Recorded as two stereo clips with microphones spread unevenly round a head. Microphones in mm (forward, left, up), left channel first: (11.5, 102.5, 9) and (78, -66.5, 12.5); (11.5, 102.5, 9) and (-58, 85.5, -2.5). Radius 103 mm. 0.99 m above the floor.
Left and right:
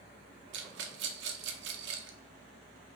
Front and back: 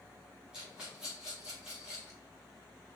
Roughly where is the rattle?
Right.